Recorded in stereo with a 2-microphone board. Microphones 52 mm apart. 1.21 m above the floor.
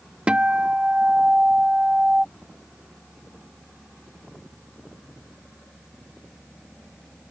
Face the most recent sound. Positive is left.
turn(degrees=-20)  # may be behind; listen again after turning